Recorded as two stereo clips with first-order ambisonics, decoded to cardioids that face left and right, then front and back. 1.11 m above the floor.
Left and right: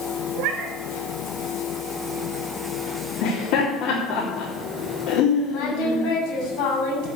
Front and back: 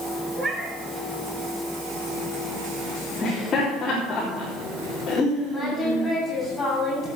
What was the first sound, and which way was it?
A cat meowing, 105° right.